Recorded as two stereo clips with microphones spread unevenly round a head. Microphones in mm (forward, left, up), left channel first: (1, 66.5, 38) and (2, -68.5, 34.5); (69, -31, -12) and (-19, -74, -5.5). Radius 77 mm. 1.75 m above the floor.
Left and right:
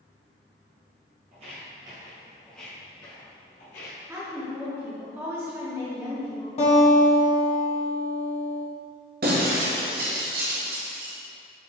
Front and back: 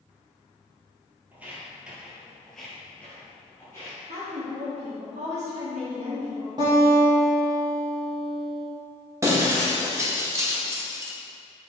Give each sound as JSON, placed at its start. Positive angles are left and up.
{"t": 1.3, "sound": "footsteps", "azimuth_deg": -95, "distance_m": 2.0}
{"t": 4.1, "sound": "a woman speaking", "azimuth_deg": -165, "distance_m": 1.8}
{"t": 6.6, "sound": "a guitar", "azimuth_deg": 140, "distance_m": 1.5}
{"t": 9.2, "sound": "breaking glass", "azimuth_deg": -105, "distance_m": 1.3}